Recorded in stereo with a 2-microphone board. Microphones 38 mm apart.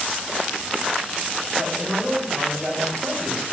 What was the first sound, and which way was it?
A man speaking, 15° right (ahead or behind).